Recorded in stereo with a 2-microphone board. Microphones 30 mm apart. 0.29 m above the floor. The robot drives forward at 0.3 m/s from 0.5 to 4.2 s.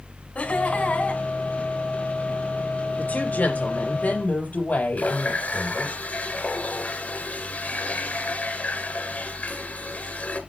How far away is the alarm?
I don't hear an alarm.